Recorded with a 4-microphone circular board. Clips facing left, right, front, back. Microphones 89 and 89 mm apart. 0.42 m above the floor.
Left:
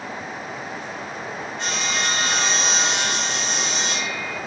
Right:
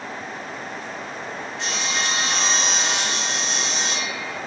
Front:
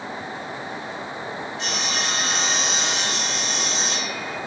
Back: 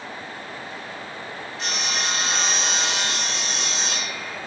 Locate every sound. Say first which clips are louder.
1.6 s sawing: left 1 dB, back 1 dB; 130° left, 1.7 m